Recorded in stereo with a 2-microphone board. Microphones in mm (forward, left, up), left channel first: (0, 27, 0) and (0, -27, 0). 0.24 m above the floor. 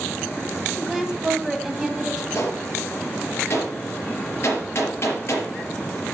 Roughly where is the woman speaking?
Centre.